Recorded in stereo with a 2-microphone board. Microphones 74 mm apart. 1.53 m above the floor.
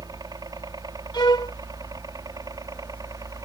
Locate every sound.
0.0 s a helicopter: 60° right (ahead or behind); by 3.5 s 55° right (ahead or behind)
1.1 s a violin: 75° left (ahead or behind)